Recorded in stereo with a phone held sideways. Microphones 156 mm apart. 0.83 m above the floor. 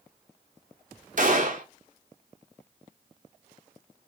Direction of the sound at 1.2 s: 55° right (ahead or behind).